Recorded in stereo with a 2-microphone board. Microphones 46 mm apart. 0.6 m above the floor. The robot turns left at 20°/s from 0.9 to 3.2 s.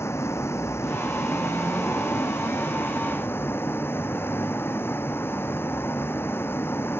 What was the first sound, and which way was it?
A vehicle, 105° left.